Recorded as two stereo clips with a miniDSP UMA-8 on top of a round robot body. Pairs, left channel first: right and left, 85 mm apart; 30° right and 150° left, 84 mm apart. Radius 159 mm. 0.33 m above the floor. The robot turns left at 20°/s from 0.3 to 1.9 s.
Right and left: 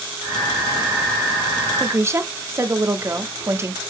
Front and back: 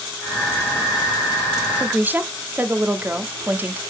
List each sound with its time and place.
1.8 s a woman speaking: 105° left, 1.1 m